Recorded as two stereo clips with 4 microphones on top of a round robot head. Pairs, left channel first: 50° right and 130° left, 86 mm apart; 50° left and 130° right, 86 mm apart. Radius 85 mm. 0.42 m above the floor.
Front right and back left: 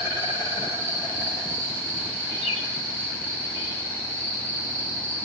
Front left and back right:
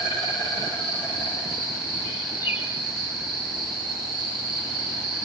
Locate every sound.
0.0 s an insect: 170° right, 9.5 m
2.4 s a bird: 65° right, 2.5 m